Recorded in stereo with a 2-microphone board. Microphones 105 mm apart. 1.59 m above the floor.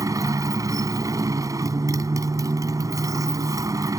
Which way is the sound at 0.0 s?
35° right (ahead or behind).